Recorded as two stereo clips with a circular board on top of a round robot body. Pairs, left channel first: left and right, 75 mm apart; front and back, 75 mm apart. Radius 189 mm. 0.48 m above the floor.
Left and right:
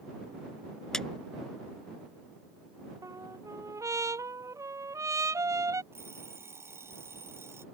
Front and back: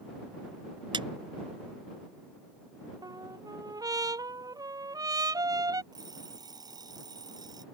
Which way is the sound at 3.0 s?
140° right.